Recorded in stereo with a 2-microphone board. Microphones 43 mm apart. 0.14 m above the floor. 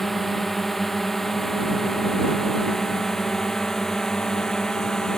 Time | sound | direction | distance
0.0 | a drone | 5° left (ahead or behind) | ?